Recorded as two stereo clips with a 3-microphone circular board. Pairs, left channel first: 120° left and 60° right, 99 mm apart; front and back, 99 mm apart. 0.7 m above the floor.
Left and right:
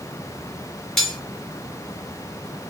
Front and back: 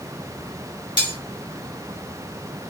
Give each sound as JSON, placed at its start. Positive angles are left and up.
{"t": 1.0, "sound": "cutlery clinking", "azimuth_deg": 35, "distance_m": 1.0}